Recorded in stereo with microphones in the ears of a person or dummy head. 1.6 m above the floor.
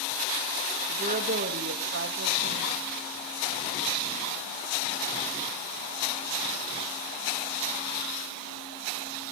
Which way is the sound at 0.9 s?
40° right (ahead or behind).